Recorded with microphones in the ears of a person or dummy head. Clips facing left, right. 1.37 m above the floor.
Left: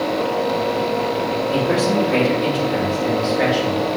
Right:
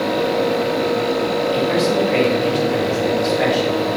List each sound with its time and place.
1.5 s a man speaking: 55° left (ahead or behind), 2.5 m; by 3.9 s 10° left (ahead or behind), 2.5 m